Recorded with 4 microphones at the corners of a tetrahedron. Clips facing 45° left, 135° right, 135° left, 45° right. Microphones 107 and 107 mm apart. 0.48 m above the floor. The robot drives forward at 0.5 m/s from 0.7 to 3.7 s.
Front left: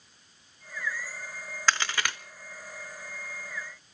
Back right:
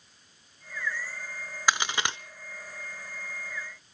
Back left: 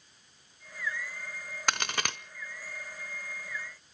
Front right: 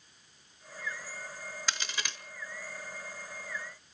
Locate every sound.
1.7 s a crack: 150° left, 0.5 m; by 2.2 s 160° left, 0.7 m